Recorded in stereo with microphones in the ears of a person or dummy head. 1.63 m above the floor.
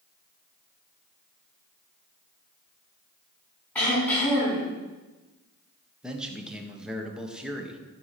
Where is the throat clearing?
15° left (ahead or behind), 4.5 m.